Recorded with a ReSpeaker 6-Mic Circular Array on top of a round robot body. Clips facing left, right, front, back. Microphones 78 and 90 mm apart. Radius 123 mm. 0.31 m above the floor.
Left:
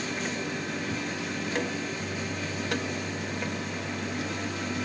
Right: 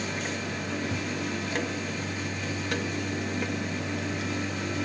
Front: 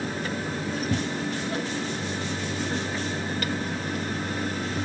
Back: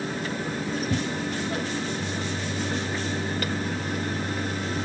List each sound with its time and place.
Only background noise.